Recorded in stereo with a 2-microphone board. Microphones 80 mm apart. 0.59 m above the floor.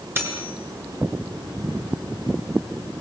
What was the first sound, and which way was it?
Cutlery clinking, 30° right (ahead or behind).